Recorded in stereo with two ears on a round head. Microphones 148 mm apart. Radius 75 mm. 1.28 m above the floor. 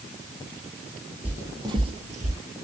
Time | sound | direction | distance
1.2 | footsteps | 10° right (ahead or behind) | 1.3 m